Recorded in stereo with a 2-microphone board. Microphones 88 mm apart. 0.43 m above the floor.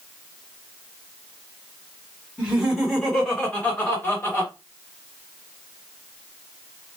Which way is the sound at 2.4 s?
10° right (ahead or behind).